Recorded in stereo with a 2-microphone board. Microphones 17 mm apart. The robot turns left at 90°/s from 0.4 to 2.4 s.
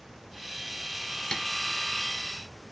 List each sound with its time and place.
1.3 s tapping: 50° left (ahead or behind), 2.5 m; by 1.4 s 60° left (ahead or behind), 2.5 m